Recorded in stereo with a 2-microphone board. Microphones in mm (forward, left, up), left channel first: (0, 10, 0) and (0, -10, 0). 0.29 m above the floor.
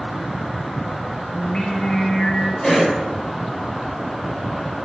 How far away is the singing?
About 1.1 m.